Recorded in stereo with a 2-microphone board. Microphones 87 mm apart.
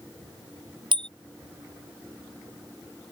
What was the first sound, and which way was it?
A bicycle bell, 70° right (ahead or behind).